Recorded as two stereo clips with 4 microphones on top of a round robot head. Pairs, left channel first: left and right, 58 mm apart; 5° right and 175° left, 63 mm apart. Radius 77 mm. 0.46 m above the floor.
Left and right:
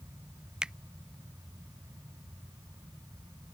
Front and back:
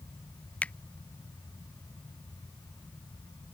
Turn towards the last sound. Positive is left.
turn(degrees=-35)